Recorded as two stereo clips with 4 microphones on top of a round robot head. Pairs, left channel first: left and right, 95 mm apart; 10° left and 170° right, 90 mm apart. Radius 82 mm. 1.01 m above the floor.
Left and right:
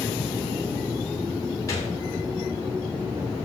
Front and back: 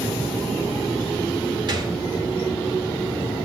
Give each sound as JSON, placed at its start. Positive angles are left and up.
{"t": 1.7, "sound": "a gunshot", "azimuth_deg": 155, "distance_m": 1.5}